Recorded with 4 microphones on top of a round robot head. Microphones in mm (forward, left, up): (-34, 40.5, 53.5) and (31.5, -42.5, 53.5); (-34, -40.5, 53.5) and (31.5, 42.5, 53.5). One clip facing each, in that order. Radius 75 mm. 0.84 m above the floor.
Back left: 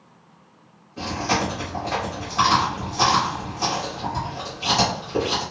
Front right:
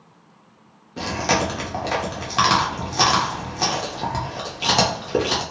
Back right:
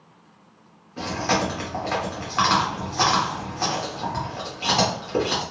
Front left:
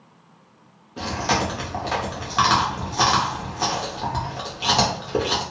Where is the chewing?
25° right, 0.6 m.